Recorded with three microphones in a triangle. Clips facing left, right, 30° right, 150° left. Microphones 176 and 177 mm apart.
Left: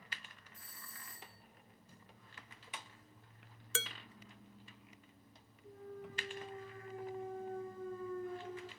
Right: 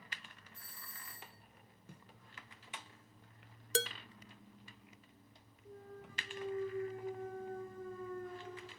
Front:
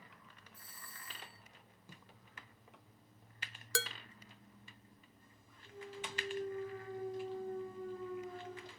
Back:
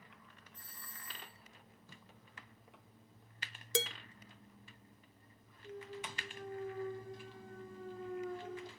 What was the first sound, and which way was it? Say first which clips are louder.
A doorbell: even, even; 110° right.